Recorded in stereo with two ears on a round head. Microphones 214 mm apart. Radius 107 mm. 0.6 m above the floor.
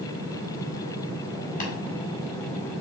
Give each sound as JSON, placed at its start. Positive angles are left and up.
{"t": 1.6, "sound": "tapping", "side_deg": 35, "distance_m": 1.9}